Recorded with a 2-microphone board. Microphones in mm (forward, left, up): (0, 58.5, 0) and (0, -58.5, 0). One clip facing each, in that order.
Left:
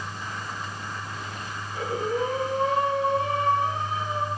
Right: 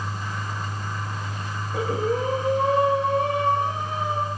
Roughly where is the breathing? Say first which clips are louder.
Right 3 dB; right.